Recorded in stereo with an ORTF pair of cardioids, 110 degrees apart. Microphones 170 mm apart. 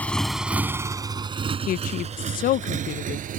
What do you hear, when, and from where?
0.0 s a motorcycle: 10° left; by 3.4 s 55° right
1.7 s a woman speaking: 55° left